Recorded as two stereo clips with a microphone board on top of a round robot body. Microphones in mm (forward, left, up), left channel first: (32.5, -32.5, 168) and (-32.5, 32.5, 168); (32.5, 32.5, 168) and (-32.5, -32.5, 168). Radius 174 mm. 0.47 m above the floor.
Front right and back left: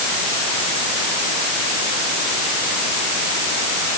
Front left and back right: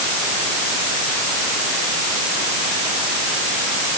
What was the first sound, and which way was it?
Only background noise.